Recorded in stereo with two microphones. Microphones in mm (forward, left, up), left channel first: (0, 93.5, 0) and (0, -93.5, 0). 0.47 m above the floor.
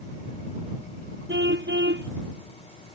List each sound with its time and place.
1.3 s a car horn: 70° right (ahead or behind)